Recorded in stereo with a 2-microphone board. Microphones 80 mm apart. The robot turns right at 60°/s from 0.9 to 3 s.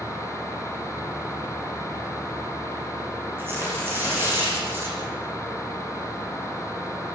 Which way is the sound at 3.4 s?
30° right (ahead or behind).